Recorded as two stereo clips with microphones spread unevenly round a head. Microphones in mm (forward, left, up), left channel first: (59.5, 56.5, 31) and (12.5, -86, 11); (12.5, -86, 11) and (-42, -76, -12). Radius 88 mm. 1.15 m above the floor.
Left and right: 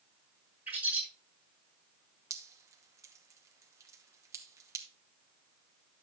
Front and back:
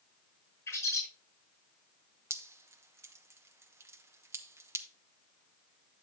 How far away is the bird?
About 6 m.